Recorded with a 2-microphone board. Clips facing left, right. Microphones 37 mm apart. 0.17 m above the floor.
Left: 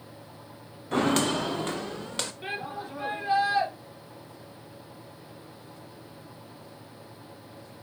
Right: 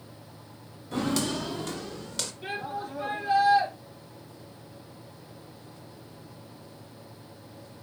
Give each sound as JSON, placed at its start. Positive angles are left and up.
{"t": 0.9, "sound": "footsteps", "side_deg": 50, "distance_m": 0.8}
{"t": 2.4, "sound": "a shout", "side_deg": 25, "distance_m": 5.0}